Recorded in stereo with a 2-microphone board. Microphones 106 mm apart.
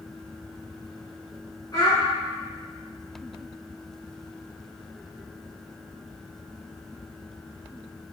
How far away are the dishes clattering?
I don't hear dishes clattering.